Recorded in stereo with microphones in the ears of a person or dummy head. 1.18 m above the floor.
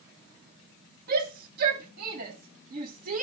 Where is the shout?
55° right (ahead or behind), 2.5 m; by 3.2 s 45° right (ahead or behind), 1.4 m.